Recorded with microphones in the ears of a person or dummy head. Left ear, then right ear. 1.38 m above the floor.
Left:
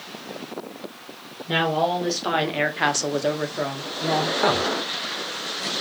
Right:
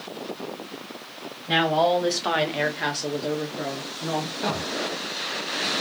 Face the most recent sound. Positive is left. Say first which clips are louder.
# left 6 dB
turn(degrees=65)  # may be behind; listen again after turning